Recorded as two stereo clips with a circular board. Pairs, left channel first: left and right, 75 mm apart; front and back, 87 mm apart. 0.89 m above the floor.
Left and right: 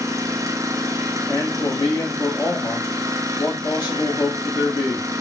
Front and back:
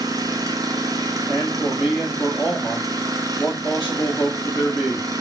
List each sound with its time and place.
0.0 s an engine running: 135° right, 0.8 m
1.3 s a man speaking: 85° left, 2 m